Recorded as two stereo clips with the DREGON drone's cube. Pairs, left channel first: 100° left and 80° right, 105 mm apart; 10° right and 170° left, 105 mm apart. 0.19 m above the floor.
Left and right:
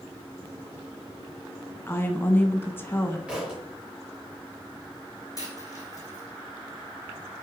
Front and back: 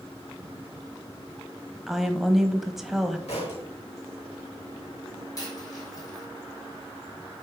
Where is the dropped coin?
45° left, 3.5 m.